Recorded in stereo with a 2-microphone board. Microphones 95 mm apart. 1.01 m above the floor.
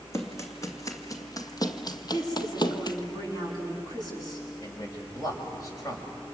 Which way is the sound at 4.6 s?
40° left (ahead or behind).